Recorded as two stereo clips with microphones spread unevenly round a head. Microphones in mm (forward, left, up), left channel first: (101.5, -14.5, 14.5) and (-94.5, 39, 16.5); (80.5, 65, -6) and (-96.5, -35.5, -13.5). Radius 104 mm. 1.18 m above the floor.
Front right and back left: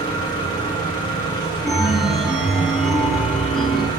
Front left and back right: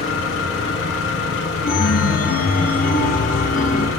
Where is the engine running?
55° left, 2.5 m.